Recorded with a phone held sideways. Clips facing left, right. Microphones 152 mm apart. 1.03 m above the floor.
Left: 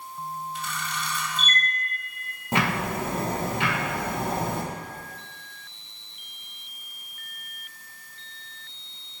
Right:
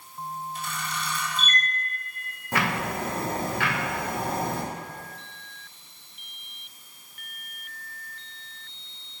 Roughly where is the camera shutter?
Right.